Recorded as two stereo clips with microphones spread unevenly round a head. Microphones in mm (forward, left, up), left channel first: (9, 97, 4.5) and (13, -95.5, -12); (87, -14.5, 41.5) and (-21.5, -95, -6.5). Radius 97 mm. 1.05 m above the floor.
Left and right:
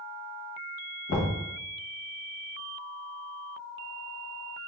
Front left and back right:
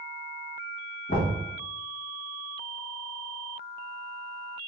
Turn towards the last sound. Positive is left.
turn(degrees=80)